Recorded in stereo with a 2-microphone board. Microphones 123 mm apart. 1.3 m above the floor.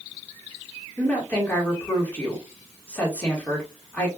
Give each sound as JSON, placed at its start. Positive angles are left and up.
{"t": 1.0, "sound": "a woman speaking", "side_deg": 10, "distance_m": 1.8}